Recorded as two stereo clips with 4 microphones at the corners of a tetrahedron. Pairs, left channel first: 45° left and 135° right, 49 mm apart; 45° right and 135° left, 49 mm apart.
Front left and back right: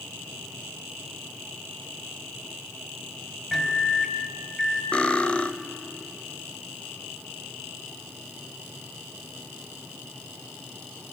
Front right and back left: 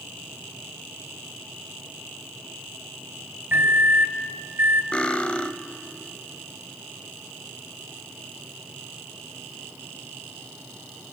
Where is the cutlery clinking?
Straight ahead, 0.6 m.